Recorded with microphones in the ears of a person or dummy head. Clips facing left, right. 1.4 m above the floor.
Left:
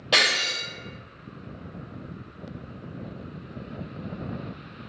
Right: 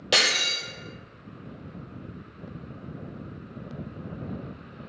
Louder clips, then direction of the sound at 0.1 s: Even; 30° right (ahead or behind).